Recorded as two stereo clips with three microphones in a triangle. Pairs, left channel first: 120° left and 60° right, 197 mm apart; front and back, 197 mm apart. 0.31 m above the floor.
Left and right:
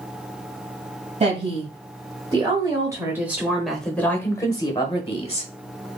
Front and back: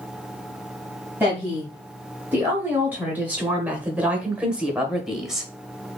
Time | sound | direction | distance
1.2 | a woman speaking | 100° right | 1.8 m